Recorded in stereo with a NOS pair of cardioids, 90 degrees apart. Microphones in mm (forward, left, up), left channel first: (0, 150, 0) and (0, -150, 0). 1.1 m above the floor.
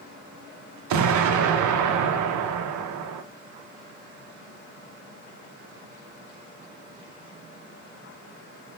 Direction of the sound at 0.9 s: 70° right.